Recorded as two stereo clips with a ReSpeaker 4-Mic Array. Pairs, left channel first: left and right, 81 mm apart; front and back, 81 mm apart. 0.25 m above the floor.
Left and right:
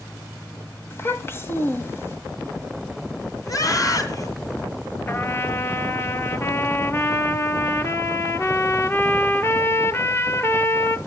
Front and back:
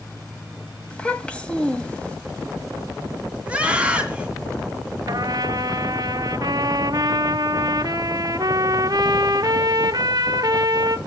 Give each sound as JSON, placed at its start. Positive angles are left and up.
{"t": 0.9, "sound": "a child speaking", "azimuth_deg": 60, "distance_m": 1.3}
{"t": 3.5, "sound": "a scream", "azimuth_deg": 110, "distance_m": 2.0}
{"t": 5.1, "sound": "a trumpet", "azimuth_deg": 145, "distance_m": 0.8}